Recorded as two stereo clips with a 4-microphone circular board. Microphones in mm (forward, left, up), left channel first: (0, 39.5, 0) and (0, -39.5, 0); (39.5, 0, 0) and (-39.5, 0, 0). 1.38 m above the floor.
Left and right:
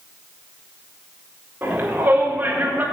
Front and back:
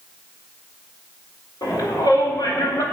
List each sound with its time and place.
1.6 s a shout: 25° right, 4.5 m